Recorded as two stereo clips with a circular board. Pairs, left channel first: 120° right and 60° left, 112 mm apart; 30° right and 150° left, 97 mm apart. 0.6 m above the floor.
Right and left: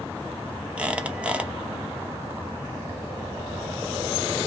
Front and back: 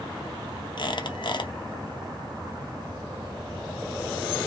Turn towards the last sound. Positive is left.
turn(degrees=-15)